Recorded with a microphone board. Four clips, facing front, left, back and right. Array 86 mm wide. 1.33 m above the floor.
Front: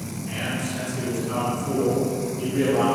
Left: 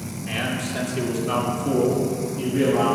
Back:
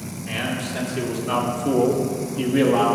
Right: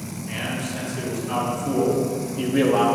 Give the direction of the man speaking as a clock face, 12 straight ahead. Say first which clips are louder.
Left 2 dB, back 3 dB; 8 o'clock.